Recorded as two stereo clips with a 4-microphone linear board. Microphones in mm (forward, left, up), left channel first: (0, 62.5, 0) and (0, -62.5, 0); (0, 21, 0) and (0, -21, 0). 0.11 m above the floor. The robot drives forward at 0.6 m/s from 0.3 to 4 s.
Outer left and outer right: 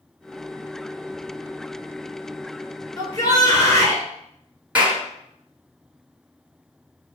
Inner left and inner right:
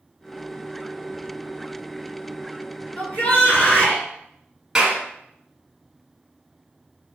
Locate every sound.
3.0 s a shout: 30° left (ahead or behind), 1.5 m
4.8 s a clap: 10° right (ahead or behind), 1.3 m